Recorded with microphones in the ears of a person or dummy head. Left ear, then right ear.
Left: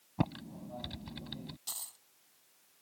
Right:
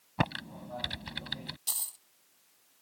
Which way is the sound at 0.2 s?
20° right (ahead or behind).